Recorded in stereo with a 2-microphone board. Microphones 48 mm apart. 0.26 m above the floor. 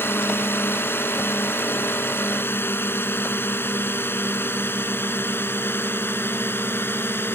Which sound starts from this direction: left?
A drone, at 0.0 s.